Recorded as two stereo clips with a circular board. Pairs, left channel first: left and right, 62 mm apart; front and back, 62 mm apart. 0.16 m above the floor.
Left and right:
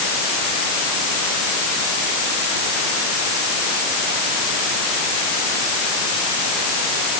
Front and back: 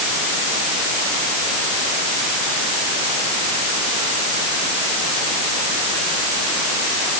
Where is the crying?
I don't hear crying.